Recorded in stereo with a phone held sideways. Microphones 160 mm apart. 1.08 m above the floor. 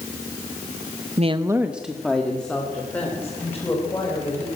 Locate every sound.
1.2 s a woman speaking: 45° right (ahead or behind), 0.6 m; by 4.5 s 15° left (ahead or behind), 5.5 m